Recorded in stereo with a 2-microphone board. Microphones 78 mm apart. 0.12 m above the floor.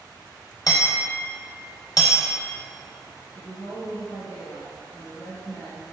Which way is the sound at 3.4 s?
30° left (ahead or behind).